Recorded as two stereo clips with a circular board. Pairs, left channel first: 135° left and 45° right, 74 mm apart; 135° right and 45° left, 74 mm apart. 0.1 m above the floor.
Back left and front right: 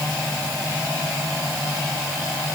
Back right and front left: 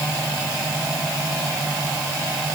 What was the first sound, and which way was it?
Only background noise.